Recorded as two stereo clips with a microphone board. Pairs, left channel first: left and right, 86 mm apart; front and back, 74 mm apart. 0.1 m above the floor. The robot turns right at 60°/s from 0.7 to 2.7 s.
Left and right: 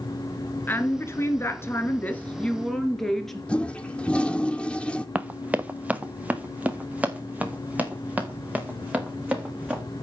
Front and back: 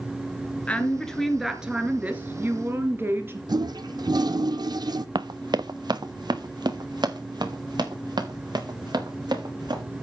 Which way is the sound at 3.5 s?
165° left.